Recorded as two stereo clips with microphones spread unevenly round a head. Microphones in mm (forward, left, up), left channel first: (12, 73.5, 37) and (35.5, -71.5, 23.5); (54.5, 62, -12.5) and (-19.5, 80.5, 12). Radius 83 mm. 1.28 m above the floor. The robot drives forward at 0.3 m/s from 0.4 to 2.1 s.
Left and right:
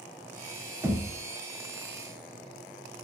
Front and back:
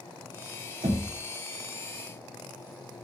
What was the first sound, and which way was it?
Knocking, 160° right.